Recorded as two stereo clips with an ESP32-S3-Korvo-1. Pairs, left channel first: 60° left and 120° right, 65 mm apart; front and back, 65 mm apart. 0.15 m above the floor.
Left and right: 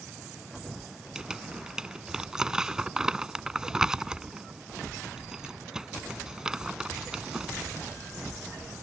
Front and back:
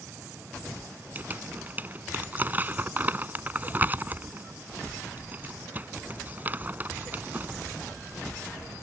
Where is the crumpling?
170° left.